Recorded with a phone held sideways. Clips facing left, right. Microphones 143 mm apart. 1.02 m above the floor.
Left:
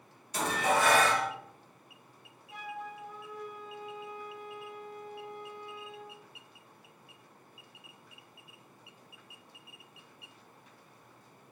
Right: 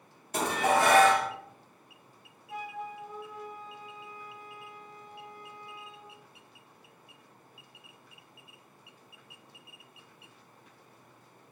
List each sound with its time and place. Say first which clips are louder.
0.3 s dishes clattering: right 3 dB; 55° right (ahead or behind), 1.0 m
2.5 s a flute: right 3 dB; 70° right (ahead or behind), 2 m